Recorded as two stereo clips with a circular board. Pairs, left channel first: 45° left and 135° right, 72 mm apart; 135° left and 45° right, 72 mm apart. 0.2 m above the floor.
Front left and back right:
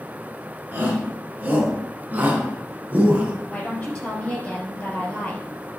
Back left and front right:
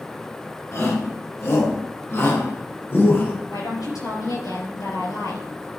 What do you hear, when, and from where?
0.7 s a shout: 165° left, 3 m; by 3.3 s 175° left, 2.0 m
3.5 s a woman speaking: 120° left, 3.5 m